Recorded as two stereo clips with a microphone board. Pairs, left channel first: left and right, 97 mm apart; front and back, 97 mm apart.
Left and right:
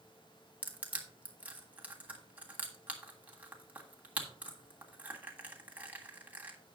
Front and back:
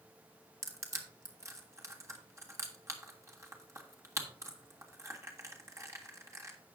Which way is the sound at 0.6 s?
155° right.